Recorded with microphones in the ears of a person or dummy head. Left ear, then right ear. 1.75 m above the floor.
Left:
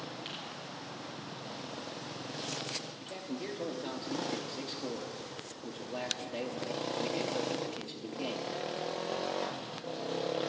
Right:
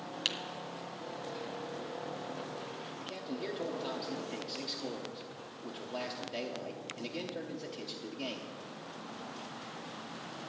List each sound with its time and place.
0.2 s tapping: 60° right (ahead or behind), 1.6 m
3.0 s a man speaking: centre (ahead or behind), 1.0 m